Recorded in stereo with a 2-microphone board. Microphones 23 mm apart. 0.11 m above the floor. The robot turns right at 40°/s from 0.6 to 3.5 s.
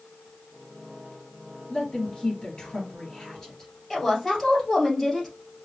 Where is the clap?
No clap in this recording.